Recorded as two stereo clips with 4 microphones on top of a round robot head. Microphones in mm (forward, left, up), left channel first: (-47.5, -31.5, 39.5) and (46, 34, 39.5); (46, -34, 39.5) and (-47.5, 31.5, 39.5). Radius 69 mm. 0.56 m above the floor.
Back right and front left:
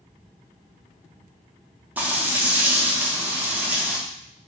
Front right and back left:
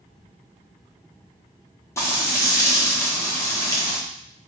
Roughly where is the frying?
Ahead.